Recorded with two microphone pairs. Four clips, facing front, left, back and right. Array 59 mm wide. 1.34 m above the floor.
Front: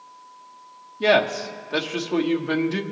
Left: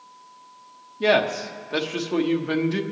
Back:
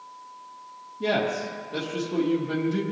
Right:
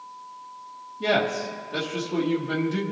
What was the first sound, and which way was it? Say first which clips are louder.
A man speaking: left 3 dB, front 6 dB; 35° left.